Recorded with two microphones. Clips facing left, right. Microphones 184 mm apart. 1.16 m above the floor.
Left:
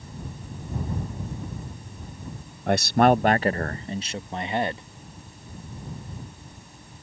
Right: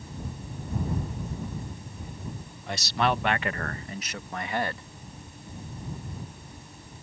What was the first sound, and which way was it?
A man speaking, 60° left (ahead or behind).